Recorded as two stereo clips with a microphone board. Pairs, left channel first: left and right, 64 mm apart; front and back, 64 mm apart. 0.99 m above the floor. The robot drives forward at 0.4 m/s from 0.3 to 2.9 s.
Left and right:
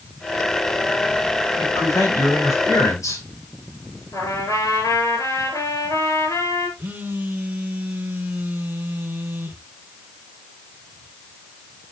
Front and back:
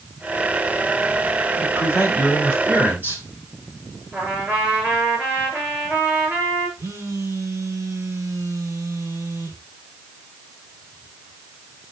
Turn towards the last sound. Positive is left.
turn(degrees=-145)